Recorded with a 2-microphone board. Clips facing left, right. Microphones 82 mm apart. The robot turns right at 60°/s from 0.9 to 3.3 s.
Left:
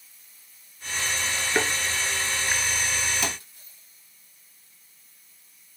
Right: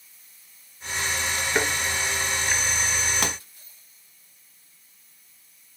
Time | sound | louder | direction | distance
1.6 | a thud | even | 10° right (ahead or behind) | 0.8 m
3.2 | a pop | right 2 dB | 65° right (ahead or behind) | 0.7 m